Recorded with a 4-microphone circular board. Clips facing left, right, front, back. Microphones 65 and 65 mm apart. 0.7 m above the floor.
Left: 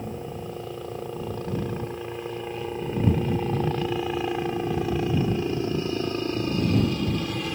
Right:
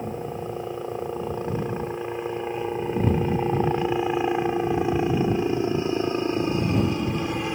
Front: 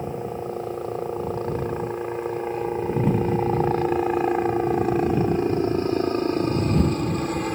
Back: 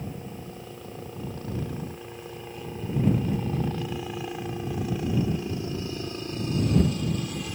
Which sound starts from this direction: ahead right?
A helicopter, at 0.0 s.